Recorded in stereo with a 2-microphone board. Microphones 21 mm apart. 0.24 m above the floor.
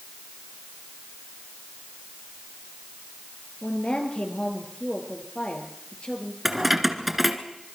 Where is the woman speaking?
65° left (ahead or behind), 5.5 m.